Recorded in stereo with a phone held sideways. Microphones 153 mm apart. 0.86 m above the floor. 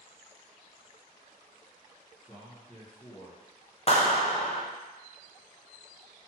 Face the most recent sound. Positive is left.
turn(degrees=40)  # may be behind; listen again after turning